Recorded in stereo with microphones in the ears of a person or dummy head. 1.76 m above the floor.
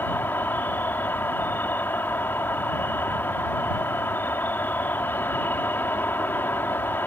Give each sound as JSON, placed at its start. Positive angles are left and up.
{"t": 0.0, "sound": "an insect", "side_deg": 10}